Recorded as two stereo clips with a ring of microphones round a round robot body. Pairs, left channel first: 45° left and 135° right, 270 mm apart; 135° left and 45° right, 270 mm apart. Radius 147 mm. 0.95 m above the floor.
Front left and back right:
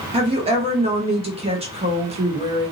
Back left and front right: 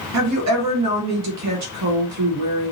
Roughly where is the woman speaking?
Ahead right.